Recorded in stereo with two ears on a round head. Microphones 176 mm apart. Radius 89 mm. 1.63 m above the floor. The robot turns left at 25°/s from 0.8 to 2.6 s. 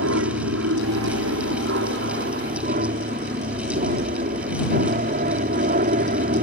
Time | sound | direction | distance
0.0 | an aircraft | 90° right | ?